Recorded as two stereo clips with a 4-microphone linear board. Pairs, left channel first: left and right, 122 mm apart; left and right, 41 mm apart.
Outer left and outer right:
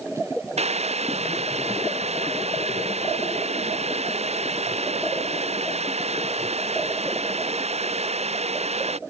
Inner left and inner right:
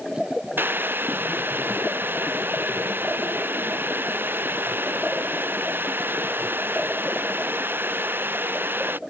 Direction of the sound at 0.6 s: 65° right (ahead or behind).